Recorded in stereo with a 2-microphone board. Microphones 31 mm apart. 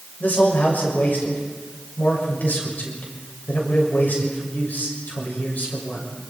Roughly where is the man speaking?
Left.